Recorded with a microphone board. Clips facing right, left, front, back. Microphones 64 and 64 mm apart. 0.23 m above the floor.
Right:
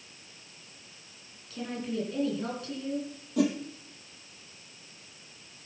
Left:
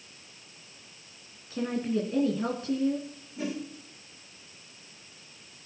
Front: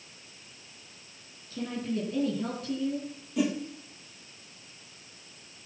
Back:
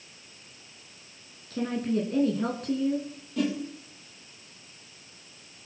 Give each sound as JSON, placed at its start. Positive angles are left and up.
{"t": 1.5, "sound": "a woman speaking", "azimuth_deg": 150, "distance_m": 2.5}
{"t": 3.4, "sound": "a whoosh", "azimuth_deg": -80, "distance_m": 3.0}